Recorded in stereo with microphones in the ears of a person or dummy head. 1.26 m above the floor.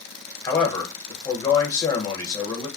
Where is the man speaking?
25° left (ahead or behind), 1.2 m.